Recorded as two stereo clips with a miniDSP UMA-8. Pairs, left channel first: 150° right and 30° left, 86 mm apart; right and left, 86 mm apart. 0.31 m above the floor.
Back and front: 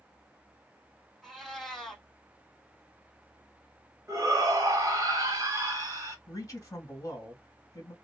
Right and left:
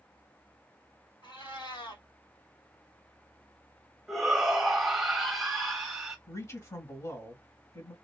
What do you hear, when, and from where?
1.2 s a cat meowing: 60° right, 1.6 m
4.1 s a shout: straight ahead, 1.3 m
6.3 s a man speaking: 120° right, 1.7 m